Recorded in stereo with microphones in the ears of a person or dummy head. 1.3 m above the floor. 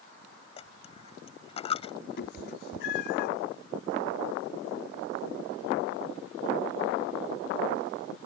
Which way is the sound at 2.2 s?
60° left (ahead or behind).